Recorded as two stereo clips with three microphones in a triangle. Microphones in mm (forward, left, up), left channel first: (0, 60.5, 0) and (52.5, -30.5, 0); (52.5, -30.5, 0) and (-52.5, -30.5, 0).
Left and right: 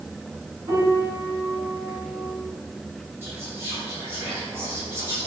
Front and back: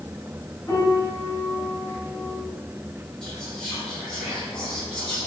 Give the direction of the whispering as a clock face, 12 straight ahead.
2 o'clock.